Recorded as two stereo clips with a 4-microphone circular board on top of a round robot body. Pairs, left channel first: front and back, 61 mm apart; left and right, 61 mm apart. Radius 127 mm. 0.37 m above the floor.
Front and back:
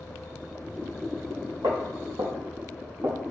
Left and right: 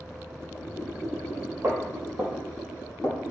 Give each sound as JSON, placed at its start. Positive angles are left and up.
{"t": 1.6, "sound": "footsteps", "azimuth_deg": -145, "distance_m": 0.9}